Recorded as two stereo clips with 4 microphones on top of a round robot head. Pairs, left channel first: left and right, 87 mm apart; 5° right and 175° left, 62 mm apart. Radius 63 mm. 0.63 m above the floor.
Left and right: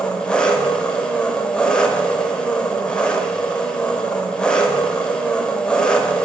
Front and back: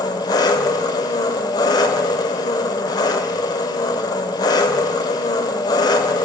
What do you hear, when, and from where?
0.0 s an engine running: 10° left, 0.8 m